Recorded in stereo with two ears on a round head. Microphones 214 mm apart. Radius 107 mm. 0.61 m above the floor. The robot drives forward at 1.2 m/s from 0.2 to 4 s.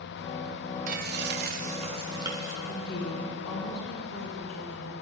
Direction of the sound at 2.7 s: 80° left.